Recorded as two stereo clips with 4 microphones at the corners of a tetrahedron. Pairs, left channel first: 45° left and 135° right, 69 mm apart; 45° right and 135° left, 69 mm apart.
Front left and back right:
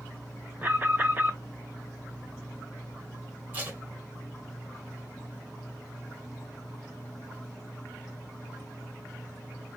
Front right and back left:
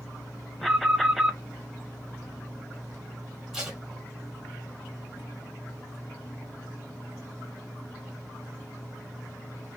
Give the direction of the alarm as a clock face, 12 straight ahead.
4 o'clock.